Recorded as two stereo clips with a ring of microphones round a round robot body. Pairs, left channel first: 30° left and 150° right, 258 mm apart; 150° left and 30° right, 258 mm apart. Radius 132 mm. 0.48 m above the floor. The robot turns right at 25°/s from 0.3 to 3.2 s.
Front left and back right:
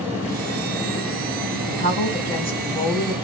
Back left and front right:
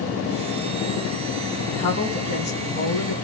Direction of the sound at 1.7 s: 90° left.